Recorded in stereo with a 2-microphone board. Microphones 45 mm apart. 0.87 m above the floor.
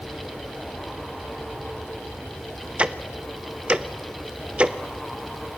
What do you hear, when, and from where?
2.8 s ticking: 25° right (ahead or behind), 1.0 m